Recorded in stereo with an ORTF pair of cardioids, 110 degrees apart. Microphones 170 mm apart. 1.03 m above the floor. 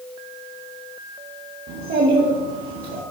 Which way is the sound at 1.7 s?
65° right.